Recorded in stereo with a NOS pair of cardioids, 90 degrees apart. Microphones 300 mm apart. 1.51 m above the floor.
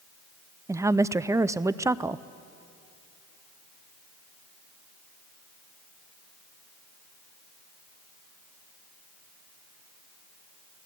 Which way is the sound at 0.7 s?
10° right.